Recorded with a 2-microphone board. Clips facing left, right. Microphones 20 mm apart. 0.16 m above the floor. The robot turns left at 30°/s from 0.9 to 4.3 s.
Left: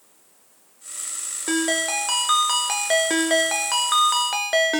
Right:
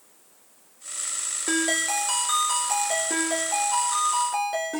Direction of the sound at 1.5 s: 170° left.